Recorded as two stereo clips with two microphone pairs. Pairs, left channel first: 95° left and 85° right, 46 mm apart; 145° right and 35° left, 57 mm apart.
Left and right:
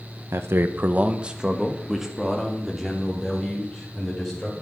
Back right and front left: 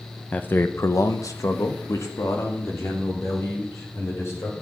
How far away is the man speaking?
About 0.8 m.